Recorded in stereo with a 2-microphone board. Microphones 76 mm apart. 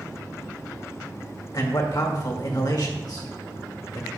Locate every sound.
1.5 s a man speaking: 55° left (ahead or behind), 1.6 m